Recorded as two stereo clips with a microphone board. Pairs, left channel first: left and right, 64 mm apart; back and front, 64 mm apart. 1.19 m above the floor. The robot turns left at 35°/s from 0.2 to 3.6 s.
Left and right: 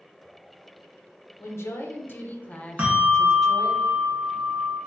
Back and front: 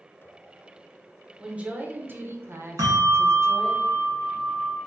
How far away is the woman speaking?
About 0.8 m.